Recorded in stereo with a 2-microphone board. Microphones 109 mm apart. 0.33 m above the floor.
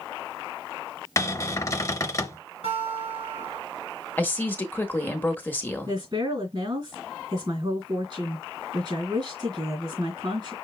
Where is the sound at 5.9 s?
45° right (ahead or behind), 2.5 m.